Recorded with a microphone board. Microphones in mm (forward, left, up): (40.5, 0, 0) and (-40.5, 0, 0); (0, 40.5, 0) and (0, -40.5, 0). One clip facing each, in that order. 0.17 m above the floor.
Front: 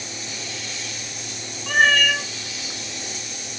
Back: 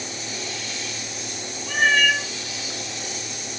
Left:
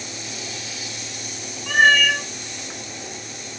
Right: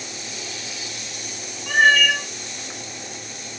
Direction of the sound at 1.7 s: 10° right.